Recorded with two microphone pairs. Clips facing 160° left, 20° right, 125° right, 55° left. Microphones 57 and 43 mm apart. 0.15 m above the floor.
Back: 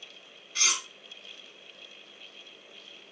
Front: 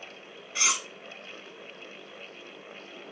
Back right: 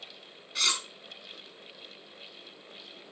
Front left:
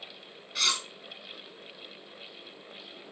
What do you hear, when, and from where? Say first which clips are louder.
0.6 s cutlery clinking: front 2 dB, even; 35° right, 0.7 m